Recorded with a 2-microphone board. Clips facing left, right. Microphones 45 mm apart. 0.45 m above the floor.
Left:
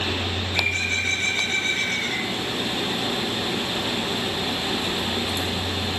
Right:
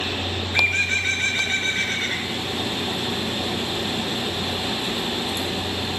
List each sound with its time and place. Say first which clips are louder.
0.5 s a bird: right 4 dB; 45° right (ahead or behind), 0.7 m